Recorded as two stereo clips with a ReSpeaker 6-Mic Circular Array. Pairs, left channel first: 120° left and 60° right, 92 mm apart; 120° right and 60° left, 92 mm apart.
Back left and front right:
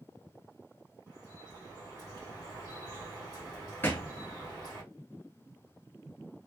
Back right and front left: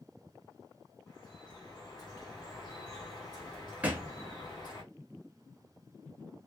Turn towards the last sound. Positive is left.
turn(degrees=105)